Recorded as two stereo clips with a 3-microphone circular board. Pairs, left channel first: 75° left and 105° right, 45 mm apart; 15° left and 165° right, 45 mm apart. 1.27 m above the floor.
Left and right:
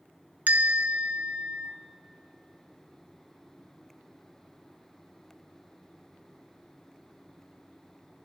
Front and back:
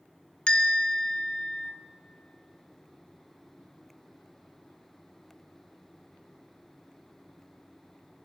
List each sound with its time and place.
0.5 s a bell: 50° right, 0.6 m